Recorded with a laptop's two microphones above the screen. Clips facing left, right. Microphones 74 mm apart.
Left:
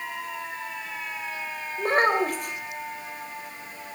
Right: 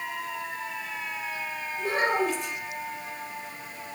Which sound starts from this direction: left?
A child speaking, at 1.8 s.